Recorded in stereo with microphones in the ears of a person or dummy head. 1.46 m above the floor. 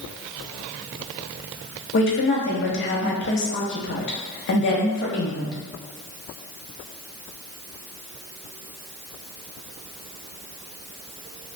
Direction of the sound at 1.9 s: 55° left (ahead or behind).